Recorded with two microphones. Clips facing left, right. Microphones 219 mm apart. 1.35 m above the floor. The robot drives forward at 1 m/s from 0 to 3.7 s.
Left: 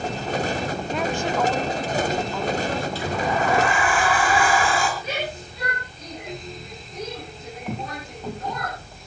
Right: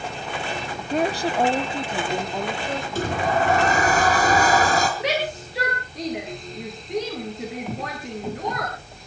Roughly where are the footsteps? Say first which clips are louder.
Right 1 dB; centre.